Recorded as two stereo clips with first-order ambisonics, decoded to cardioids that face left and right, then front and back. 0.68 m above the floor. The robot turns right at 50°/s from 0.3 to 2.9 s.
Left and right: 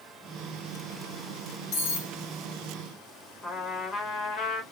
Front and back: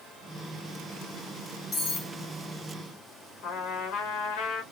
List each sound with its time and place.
1.7 s cutlery clinking: 65° left, 1.2 m; by 2.1 s 85° left, 1.2 m
3.4 s a trumpet: 35° left, 1.1 m